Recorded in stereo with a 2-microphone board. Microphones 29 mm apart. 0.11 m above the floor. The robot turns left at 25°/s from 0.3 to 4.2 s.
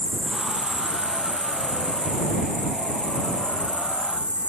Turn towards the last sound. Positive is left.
turn(degrees=-135)